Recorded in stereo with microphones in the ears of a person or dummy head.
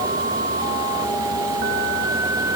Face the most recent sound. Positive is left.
No sound to turn to.